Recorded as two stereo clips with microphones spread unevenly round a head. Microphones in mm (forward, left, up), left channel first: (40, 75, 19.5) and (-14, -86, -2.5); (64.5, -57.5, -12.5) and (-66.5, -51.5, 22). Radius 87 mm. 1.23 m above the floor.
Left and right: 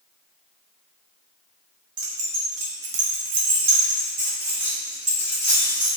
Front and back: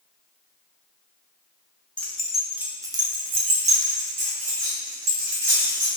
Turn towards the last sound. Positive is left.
turn(degrees=155)